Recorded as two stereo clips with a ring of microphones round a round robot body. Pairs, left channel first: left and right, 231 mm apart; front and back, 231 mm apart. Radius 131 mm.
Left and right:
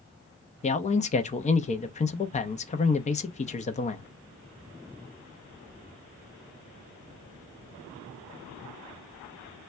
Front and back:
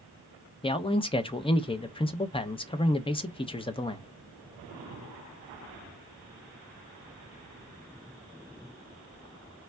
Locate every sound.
0.6 s a man speaking: 55° left, 0.6 m